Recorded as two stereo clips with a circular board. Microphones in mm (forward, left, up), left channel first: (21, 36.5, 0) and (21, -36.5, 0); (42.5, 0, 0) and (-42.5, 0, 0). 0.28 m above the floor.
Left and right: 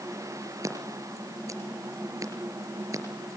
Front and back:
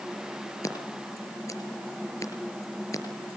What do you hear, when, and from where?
0.6 s scissors: 45° right, 4.5 m